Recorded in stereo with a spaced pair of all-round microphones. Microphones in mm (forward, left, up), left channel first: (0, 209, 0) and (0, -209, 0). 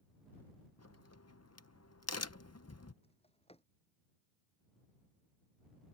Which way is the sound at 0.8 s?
35° left (ahead or behind).